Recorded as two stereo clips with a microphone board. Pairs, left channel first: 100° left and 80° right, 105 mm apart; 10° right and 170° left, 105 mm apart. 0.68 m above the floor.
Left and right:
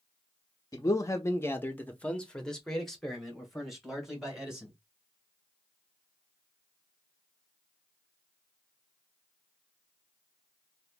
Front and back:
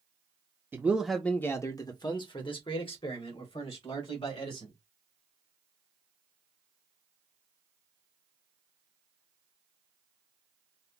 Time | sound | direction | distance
0.7 | a man speaking | 115° left | 0.5 m